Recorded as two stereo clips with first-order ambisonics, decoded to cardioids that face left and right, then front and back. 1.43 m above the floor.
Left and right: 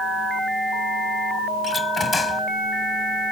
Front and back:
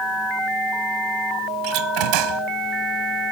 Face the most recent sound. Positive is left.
turn(degrees=165)